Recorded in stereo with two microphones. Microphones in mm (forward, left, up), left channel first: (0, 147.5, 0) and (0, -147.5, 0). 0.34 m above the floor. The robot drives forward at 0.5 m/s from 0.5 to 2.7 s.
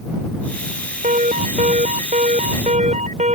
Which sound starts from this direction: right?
An alarm, at 1.0 s.